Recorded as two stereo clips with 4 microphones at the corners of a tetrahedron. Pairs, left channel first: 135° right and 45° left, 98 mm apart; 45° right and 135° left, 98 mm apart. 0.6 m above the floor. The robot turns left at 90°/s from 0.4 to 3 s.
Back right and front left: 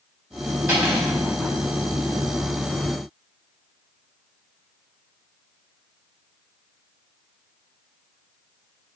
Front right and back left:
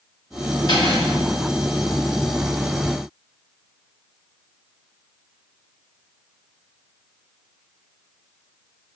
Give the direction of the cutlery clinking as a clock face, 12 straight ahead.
1 o'clock.